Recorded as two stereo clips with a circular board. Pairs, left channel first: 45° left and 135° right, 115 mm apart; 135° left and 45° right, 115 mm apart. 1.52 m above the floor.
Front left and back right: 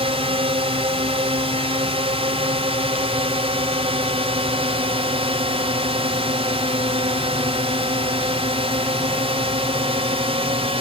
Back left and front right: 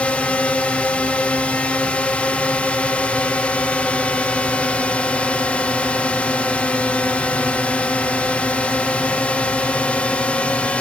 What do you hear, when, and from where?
0.0 s a drone: 150° right